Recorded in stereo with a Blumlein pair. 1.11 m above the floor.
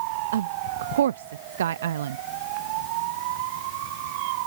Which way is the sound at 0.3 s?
60° right.